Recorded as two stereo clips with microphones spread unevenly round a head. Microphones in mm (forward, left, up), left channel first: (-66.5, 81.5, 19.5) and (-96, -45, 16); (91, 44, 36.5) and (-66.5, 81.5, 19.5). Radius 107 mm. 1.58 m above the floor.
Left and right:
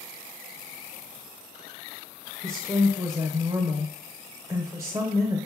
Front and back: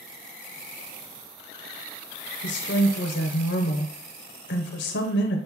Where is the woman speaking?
25° right, 0.7 m.